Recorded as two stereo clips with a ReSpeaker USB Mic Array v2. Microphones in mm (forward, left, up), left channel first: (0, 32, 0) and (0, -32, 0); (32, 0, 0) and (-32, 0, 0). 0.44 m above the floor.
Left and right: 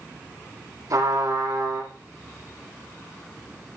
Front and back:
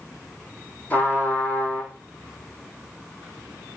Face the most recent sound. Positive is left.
turn(degrees=-65)